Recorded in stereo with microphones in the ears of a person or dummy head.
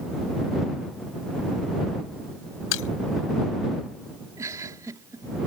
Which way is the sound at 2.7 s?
80° left.